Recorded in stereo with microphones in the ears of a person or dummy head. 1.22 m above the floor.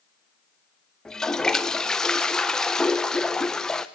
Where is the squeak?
I don't hear a squeak.